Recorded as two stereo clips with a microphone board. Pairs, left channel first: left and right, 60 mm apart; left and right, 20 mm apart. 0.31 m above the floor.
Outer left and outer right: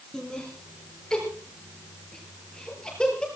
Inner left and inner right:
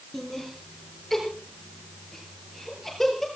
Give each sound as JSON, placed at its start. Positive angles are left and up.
{"t": 0.1, "sound": "laughter", "side_deg": 15, "distance_m": 6.0}